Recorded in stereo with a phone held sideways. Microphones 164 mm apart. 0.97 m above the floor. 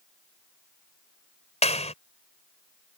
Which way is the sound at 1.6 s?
40° left (ahead or behind).